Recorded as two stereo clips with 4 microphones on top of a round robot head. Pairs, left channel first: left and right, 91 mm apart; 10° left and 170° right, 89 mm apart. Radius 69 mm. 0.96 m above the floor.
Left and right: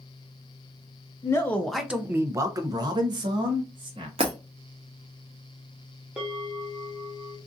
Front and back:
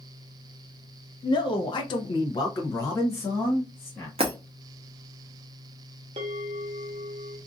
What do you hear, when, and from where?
1.2 s a man speaking: 35° left, 0.6 m; by 4.1 s 65° right, 1.4 m
4.2 s breaking glass: 135° right, 0.7 m
6.2 s a bell: 170° right, 0.6 m